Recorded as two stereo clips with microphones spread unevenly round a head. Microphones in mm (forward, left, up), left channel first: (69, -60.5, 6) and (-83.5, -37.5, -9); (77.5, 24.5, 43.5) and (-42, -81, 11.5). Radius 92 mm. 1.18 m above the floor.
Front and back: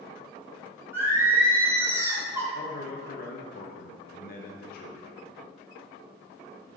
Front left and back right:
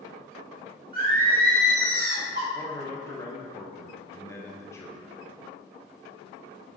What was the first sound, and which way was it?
Singing, 115° right.